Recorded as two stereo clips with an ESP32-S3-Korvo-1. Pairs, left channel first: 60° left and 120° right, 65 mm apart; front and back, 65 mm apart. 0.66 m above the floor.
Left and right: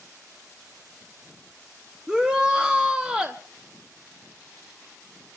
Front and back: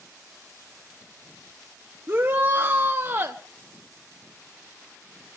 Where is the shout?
175° left, 0.9 m.